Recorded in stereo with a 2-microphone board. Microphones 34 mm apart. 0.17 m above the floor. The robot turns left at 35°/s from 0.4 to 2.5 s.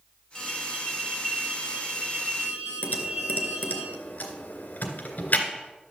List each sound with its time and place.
0.3 s an alarm: 10° left, 6.5 m; by 3.8 s 65° right, 6.5 m
2.8 s typing on a keyboard: 60° left (ahead or behind), 2.0 m